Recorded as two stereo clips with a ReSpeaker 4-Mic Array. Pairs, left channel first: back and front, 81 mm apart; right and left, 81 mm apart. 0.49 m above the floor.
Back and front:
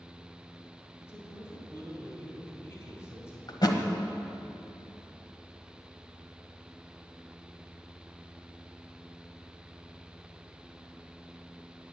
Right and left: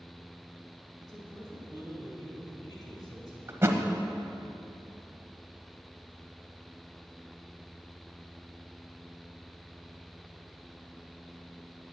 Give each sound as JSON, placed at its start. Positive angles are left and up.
{"t": 1.0, "sound": "a man speaking", "azimuth_deg": -120, "distance_m": 3.0}
{"t": 3.5, "sound": "a thud", "azimuth_deg": 150, "distance_m": 1.2}